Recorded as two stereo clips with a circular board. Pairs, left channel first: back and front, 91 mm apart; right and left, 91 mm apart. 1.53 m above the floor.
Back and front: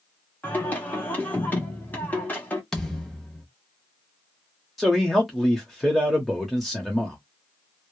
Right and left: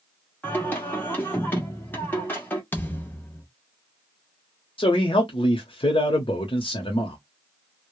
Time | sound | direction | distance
0.4 | singing | 130° right | 1.1 m
2.7 | a thud | 105° right | 0.8 m
4.8 | a man speaking | 90° right | 0.8 m